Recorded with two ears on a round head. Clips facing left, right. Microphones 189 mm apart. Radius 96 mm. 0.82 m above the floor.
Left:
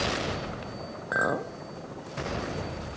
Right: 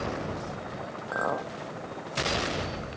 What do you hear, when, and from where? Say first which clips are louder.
1.1 s a clink: left 2 dB; 25° left (ahead or behind), 0.6 m